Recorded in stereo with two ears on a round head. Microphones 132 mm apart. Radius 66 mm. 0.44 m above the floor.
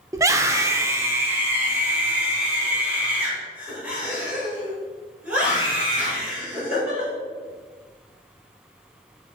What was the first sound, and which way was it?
A scream, 20° right (ahead or behind).